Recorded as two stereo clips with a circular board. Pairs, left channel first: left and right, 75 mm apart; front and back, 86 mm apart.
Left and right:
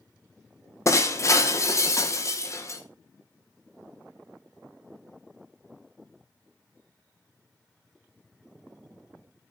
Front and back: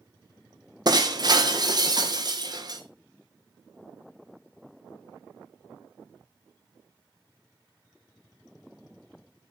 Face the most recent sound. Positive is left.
turn(degrees=140)